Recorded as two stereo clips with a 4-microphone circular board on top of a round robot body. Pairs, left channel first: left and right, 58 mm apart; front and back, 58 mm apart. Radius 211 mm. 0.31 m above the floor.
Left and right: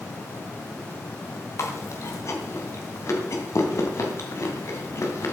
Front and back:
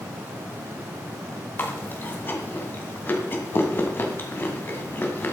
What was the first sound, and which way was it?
Chewing, 55° left.